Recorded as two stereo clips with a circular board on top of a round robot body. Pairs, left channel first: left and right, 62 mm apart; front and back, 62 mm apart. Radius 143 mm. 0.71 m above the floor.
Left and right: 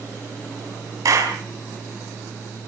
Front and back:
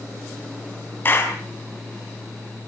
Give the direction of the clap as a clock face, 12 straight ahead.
2 o'clock.